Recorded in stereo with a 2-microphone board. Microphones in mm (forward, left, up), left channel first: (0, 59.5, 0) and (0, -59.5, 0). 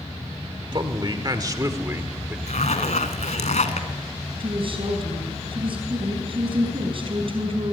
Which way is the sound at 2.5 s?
85° left.